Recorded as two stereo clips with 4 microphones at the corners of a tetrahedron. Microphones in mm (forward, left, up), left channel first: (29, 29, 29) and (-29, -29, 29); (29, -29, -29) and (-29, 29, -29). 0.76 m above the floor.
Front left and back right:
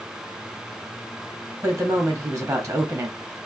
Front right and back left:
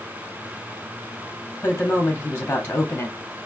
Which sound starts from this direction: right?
A woman speaking, at 1.6 s.